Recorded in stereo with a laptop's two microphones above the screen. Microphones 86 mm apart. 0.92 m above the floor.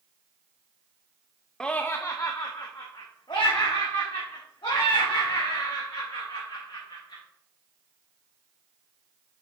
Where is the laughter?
5° left (ahead or behind), 0.5 m; by 7.2 s 75° left (ahead or behind), 4 m.